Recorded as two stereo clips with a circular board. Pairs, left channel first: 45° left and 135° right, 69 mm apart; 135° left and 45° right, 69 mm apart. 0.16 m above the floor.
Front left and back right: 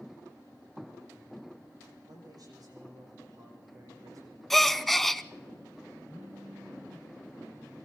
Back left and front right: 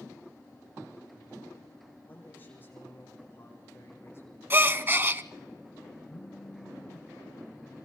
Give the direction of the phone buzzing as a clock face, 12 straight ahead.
6 o'clock.